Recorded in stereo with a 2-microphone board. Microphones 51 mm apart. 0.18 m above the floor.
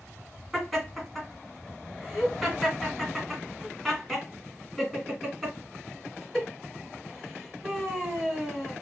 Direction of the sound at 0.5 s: Centre (ahead or behind).